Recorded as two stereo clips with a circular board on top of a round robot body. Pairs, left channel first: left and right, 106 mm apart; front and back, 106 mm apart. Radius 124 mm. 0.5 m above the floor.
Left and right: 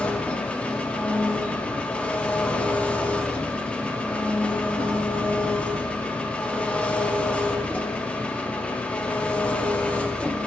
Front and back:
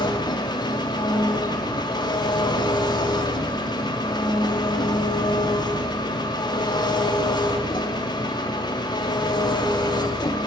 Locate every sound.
0.0 s an engine running: 15° left, 0.9 m